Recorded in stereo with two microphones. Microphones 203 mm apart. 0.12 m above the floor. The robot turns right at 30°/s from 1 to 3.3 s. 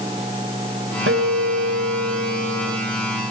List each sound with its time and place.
1.1 s a guitar: 90° right, 5 m; by 2.8 s 40° right, 5 m